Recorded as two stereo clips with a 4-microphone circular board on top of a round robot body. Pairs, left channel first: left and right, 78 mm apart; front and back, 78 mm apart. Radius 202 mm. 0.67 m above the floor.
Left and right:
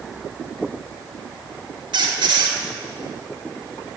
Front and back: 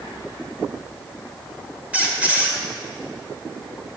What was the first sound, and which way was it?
A squeak, 105° right.